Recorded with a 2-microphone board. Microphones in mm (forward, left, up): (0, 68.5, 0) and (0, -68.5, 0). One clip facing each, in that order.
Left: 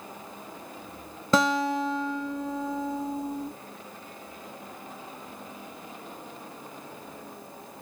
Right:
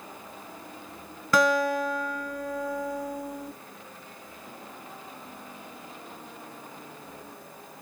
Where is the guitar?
25° left (ahead or behind), 0.5 m.